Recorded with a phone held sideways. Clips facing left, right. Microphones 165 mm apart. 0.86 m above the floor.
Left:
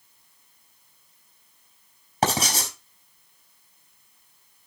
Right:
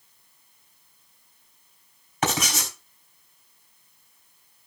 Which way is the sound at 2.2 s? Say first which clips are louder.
Left 2 dB; 35° left (ahead or behind).